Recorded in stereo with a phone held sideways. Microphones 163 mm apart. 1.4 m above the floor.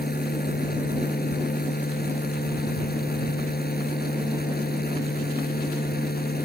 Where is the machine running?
75° left (ahead or behind).